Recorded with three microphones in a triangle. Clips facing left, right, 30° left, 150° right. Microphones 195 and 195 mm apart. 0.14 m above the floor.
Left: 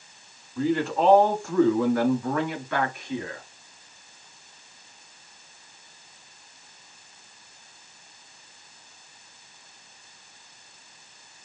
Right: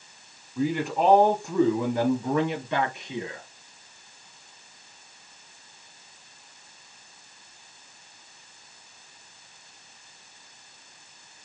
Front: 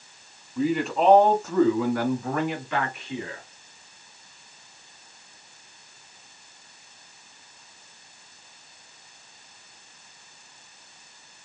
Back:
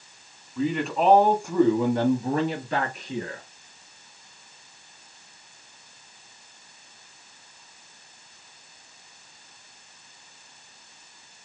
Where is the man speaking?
40° right, 1.6 m; by 3.4 s 150° right, 2 m.